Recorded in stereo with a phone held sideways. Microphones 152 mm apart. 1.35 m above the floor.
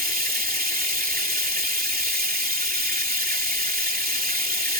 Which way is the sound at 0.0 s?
75° right (ahead or behind).